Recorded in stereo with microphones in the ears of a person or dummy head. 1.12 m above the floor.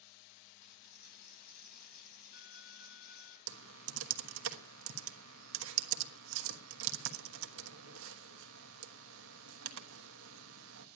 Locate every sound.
0.6 s a dropped coin: 55° left (ahead or behind), 3.5 m
3.5 s typing on a keyboard: 80° right, 1.2 m